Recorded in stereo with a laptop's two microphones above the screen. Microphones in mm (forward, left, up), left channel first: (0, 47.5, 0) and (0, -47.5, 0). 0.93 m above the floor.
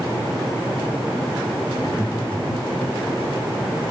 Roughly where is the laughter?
Left.